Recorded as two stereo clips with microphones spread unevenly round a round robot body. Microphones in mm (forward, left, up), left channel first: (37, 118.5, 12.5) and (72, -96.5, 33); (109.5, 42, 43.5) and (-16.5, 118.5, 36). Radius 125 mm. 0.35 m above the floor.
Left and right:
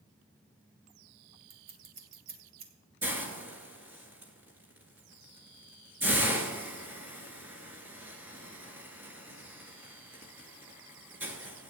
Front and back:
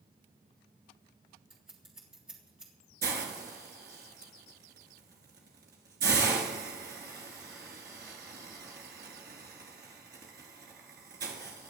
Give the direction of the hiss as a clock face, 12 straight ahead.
5 o'clock.